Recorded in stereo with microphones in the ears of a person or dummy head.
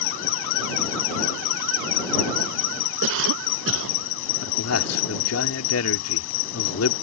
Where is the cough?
75° right (ahead or behind).